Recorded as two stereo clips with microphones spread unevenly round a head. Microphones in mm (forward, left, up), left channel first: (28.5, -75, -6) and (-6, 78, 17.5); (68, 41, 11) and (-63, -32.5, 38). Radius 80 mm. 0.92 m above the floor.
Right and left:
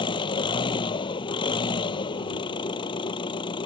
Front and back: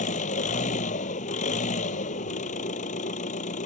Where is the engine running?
15° right.